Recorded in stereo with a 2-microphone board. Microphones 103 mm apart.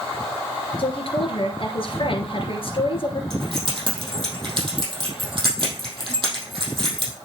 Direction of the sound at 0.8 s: 55° left (ahead or behind).